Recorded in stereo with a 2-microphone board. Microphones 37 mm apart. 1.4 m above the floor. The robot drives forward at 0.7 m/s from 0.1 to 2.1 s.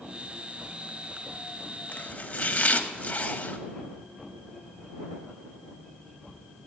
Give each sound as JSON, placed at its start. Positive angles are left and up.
{"t": 1.9, "sound": "chopping", "side_deg": 40, "distance_m": 0.8}